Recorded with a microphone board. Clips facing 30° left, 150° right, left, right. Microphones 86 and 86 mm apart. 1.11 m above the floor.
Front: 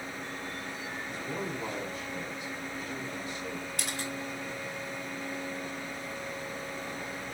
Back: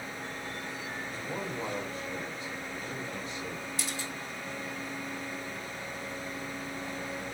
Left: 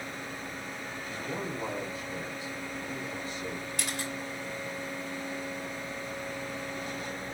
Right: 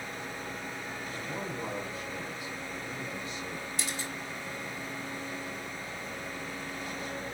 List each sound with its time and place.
1.1 s a man speaking: 160° left, 4.5 m; by 3.7 s 140° left, 2.5 m
3.8 s a camera shutter: 60° left, 2.5 m